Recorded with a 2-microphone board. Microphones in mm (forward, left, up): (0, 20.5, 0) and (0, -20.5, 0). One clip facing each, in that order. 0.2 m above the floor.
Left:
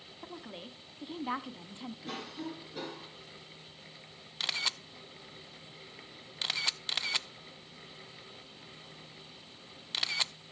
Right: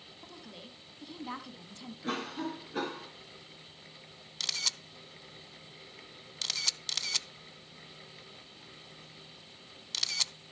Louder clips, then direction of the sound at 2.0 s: Right 7 dB; 45° right (ahead or behind).